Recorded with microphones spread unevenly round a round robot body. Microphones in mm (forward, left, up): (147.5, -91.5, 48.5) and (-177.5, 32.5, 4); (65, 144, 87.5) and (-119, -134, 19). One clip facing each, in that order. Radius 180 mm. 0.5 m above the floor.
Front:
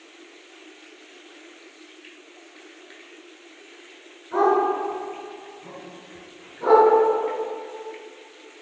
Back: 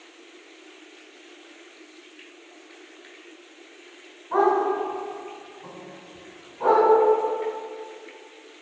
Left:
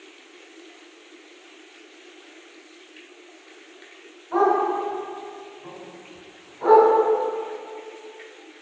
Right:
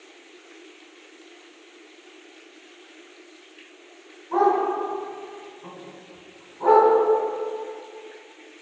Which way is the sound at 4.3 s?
160° left.